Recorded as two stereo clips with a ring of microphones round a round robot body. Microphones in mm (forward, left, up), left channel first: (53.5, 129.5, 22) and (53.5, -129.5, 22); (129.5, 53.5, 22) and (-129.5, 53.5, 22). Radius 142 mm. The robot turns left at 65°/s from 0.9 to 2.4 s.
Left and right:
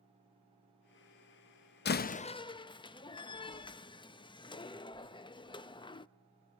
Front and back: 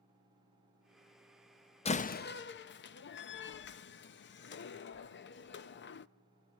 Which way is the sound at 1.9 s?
60° left.